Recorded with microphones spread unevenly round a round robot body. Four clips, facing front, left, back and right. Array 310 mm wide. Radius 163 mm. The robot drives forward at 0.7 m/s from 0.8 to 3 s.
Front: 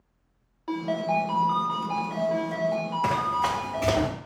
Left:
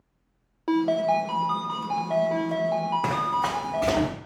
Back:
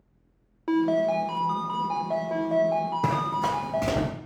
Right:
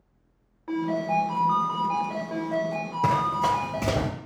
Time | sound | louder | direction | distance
0.7 | a ringtone | left 4 dB, back 4 dB | 120° left | 0.5 m
3.0 | running footsteps | right 2 dB, front 1 dB | 155° right | 1.7 m